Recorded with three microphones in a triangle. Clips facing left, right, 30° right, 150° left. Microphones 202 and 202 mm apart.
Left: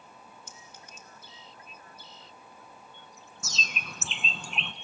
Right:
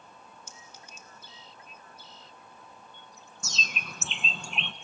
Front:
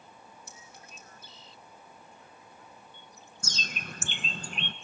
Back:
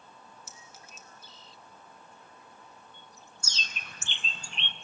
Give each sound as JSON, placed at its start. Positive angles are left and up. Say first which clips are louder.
{"t": 0.5, "sound": "a clink", "louder": "even, front 1 dB", "azimuth_deg": 65, "distance_m": 2.5}
{"t": 3.4, "sound": "a bird", "louder": "even, front 7 dB", "azimuth_deg": 0, "distance_m": 0.6}